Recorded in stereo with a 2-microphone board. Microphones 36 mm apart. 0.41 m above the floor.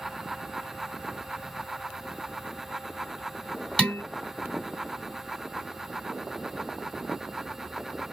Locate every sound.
3.8 s dishes clattering: 20° left (ahead or behind), 2.5 m